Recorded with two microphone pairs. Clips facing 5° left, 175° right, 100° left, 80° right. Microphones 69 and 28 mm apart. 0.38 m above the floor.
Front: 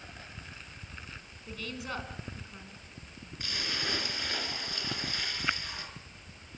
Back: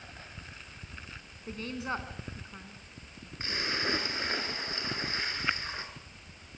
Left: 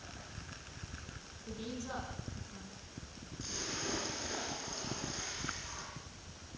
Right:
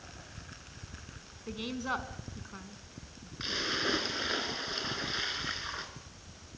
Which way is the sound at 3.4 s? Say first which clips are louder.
Back 4 dB, right 9 dB; 115° right.